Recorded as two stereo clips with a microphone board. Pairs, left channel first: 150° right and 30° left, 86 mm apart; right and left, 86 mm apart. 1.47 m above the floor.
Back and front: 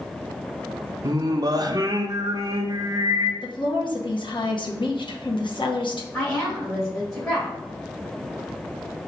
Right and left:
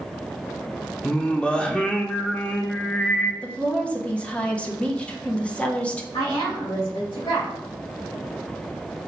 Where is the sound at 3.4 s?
165° right, 0.9 m.